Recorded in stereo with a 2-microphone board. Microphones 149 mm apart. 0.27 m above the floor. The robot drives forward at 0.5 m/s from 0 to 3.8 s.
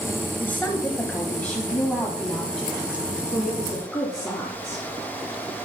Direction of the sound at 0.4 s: 10° left (ahead or behind).